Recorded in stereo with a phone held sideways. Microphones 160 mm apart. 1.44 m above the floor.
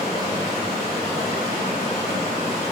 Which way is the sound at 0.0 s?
Centre (ahead or behind).